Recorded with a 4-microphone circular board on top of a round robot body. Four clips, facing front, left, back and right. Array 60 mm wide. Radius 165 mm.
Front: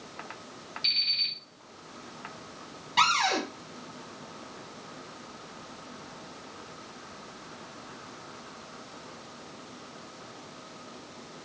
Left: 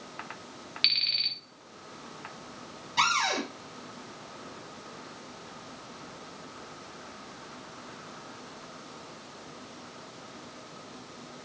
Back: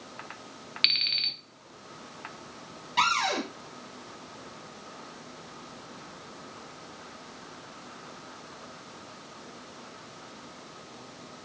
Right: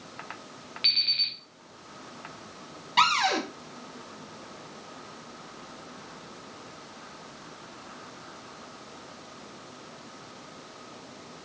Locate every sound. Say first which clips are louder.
0.8 s an alarm clock: even, back 5 dB; 170° left, 0.6 m
3.0 s a cupboard door: right 4 dB, front 1 dB; 80° right, 1.4 m